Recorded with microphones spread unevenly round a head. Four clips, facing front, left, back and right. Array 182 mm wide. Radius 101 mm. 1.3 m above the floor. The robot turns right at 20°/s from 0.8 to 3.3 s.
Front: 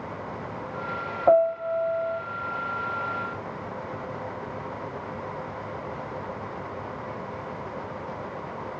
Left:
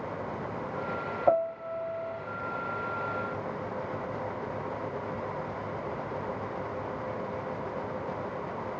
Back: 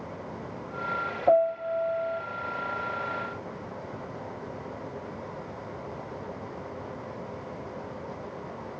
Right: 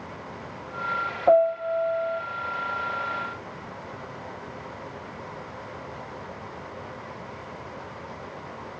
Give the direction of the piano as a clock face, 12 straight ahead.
1 o'clock.